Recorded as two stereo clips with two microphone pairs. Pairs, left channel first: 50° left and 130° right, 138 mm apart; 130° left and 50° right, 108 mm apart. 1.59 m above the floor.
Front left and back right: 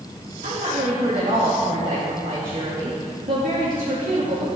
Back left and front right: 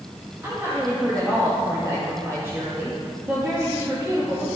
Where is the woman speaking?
120° right, 1.9 m.